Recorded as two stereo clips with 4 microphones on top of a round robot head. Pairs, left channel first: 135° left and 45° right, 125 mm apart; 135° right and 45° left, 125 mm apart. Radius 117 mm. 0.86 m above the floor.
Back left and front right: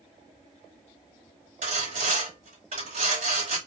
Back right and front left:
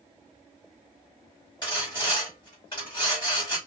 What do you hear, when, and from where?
1.6 s sawing: 80° right, 4.5 m